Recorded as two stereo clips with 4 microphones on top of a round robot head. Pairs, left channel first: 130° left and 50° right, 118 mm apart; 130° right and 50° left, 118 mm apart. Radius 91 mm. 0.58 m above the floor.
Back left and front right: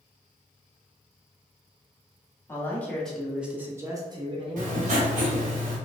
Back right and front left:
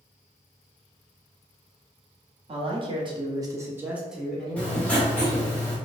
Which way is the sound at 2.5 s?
65° left.